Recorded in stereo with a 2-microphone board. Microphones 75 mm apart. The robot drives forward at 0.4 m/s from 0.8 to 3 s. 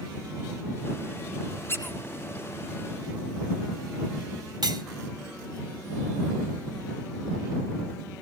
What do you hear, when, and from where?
1.7 s a squeak: 30° left (ahead or behind), 4 m; by 2.0 s 35° left (ahead or behind), 3.5 m
4.6 s cutlery clinking: 80° right, 2.5 m